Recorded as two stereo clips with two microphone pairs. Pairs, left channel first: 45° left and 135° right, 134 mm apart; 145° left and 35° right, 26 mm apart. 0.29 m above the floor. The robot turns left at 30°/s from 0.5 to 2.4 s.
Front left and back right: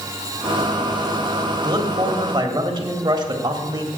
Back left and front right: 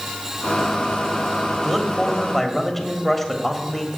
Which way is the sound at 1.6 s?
115° right.